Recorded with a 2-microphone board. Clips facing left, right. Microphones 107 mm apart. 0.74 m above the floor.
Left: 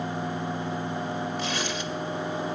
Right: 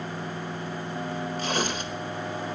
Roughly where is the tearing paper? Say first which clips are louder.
Right 2 dB; right.